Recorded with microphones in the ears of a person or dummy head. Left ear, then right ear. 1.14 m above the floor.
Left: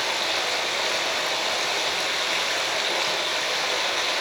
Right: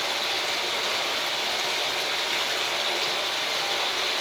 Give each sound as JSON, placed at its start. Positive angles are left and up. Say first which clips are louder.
{"t": 0.0, "sound": "running water", "louder": "left 2 dB", "side_deg": 5, "distance_m": 5.5}